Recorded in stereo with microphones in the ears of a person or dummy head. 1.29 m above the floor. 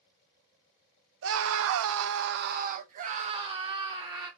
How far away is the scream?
About 0.8 m.